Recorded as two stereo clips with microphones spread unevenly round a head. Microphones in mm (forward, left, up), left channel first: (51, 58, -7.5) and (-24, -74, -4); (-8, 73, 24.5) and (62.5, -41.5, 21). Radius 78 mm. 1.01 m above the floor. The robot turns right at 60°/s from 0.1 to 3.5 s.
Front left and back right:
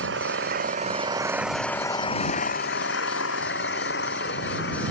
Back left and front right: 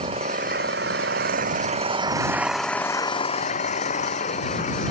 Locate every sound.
0.0 s an engine running: 115° right; by 4.9 s 85° left